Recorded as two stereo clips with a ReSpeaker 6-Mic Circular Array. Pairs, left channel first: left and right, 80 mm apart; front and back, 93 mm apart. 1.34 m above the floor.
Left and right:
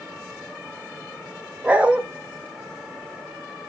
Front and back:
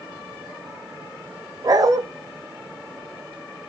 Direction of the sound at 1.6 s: 160° right.